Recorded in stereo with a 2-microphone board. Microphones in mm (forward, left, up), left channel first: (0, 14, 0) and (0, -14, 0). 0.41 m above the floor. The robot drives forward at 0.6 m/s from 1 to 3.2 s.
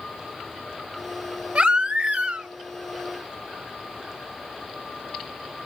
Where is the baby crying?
40° right (ahead or behind), 1.1 m.